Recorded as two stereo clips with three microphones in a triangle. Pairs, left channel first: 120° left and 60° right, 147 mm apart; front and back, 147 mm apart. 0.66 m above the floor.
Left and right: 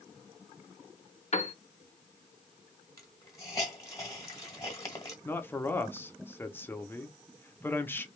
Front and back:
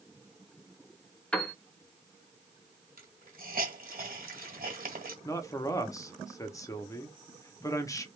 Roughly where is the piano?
Left.